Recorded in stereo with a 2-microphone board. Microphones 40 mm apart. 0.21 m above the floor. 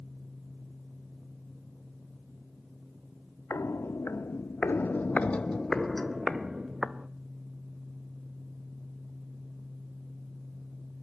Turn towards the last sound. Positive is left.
turn(degrees=-20)  # may be behind; listen again after turning